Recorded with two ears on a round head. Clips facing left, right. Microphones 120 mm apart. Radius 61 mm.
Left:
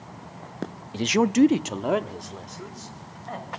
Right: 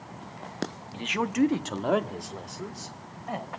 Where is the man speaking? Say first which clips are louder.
Left 7 dB; 45° left (ahead or behind), 0.7 m; by 3.5 s 15° right (ahead or behind), 2.5 m.